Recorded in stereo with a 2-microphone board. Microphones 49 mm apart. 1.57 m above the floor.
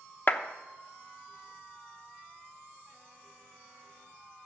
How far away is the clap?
About 0.9 m.